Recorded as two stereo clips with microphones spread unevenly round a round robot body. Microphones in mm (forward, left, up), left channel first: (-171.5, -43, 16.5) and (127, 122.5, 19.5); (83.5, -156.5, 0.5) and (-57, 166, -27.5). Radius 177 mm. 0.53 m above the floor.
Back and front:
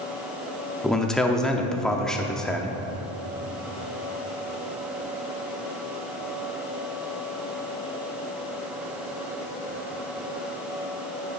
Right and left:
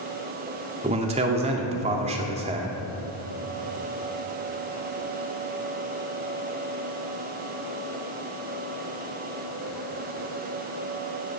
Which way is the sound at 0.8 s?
125° left.